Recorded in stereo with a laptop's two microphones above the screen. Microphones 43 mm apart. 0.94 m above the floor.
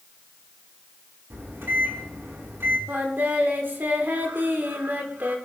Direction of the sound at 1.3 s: 75° right (ahead or behind).